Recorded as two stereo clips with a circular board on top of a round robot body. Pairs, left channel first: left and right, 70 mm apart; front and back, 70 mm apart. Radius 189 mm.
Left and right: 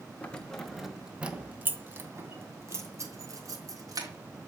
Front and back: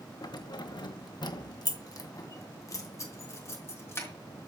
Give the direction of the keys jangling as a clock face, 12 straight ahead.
11 o'clock.